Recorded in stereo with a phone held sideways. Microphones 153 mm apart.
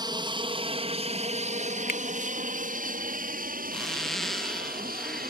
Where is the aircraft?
30° right (ahead or behind); by 5.3 s 70° right (ahead or behind).